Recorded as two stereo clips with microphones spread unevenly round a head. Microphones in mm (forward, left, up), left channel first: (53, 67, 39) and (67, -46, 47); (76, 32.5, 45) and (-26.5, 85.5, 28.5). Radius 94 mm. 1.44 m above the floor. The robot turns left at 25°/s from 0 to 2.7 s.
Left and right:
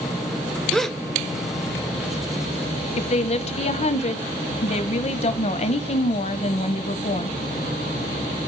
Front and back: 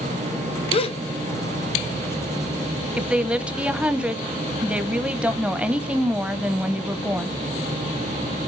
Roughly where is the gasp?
Ahead.